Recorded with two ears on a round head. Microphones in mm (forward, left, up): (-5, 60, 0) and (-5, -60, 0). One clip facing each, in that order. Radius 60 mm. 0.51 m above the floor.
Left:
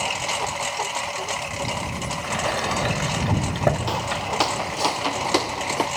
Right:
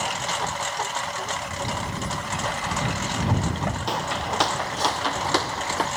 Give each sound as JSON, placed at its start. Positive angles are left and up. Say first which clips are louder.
{"t": 0.0, "sound": "a lawn mower", "louder": "left 1 dB", "side_deg": 15}
{"t": 2.2, "sound": "a sliding door", "louder": "left 7 dB", "side_deg": 65}
{"t": 3.9, "sound": "footsteps", "louder": "left 1 dB", "side_deg": 0}